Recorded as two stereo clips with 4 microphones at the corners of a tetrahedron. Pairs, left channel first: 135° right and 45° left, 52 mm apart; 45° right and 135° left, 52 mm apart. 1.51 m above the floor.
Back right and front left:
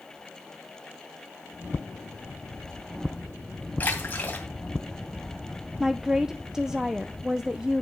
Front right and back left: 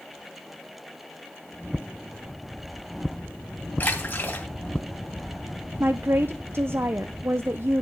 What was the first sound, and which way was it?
A splash, 85° right.